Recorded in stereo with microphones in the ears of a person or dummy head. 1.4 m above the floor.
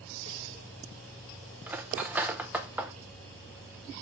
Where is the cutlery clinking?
5° right (ahead or behind), 0.5 m.